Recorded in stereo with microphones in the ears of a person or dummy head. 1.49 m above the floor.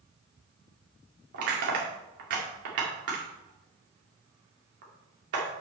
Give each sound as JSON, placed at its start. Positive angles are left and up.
{"t": 1.3, "sound": "crushing", "side_deg": -60, "distance_m": 2.0}